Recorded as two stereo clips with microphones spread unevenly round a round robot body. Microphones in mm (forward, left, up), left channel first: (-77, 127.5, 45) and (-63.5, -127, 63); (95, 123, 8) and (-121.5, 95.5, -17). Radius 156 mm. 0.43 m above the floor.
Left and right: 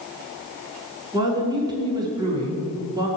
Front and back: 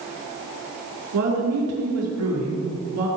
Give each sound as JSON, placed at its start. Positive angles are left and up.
{"t": 1.1, "sound": "a woman speaking", "azimuth_deg": -160, "distance_m": 5.0}